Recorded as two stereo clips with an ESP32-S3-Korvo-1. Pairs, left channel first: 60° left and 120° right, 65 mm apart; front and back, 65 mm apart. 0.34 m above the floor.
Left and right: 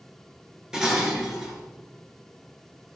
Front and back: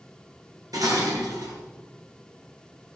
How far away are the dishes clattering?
About 3.5 m.